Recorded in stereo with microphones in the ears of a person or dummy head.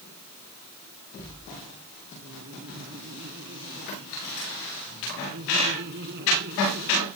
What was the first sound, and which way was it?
Laughter, 55° right (ahead or behind).